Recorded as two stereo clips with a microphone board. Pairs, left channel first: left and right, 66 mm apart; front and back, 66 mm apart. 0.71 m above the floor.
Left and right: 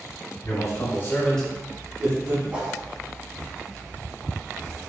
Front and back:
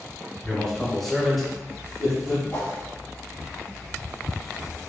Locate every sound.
0.5 s a man speaking: 85° left, 1.3 m; by 2.4 s 100° right, 1.2 m
2.5 s a whoosh: 35° right, 0.9 m